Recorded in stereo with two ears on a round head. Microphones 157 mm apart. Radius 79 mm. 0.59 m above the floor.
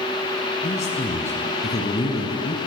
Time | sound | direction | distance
0.6 | a man speaking | 45° left (ahead or behind) | 4.5 m